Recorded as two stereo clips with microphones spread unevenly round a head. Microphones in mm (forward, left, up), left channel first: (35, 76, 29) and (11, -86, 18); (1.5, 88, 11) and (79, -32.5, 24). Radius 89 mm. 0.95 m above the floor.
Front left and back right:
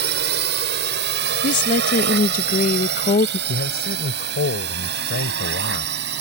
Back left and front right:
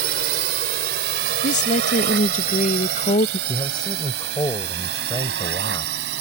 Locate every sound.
0.0 s a drone: 85° right; by 6.2 s 80° right
1.4 s a woman speaking: 120° left
3.5 s a man speaking: 60° left